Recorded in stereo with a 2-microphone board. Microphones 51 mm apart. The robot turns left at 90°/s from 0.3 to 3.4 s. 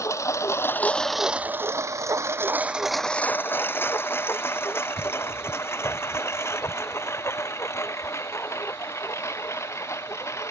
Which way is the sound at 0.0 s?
85° left.